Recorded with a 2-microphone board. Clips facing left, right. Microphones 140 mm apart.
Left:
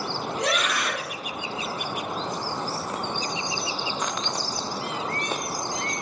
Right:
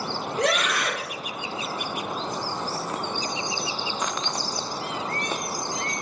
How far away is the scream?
About 3.5 m.